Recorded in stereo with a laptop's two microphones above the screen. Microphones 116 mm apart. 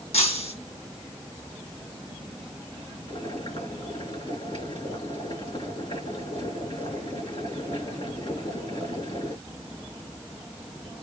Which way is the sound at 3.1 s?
55° left (ahead or behind).